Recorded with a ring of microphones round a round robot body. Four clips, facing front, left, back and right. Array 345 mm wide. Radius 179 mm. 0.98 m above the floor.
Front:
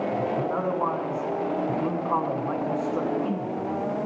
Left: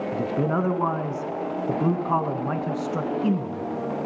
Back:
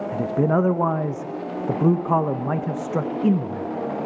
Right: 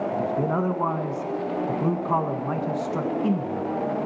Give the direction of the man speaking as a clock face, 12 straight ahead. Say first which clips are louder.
Left 2 dB, back 5 dB; 6 o'clock.